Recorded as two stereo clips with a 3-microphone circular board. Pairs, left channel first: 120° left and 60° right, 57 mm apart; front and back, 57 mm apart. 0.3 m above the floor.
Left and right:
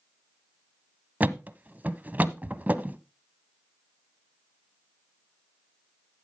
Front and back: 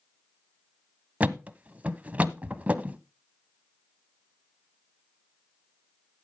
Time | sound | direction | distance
1.2 | a thud | 115° right | 0.7 m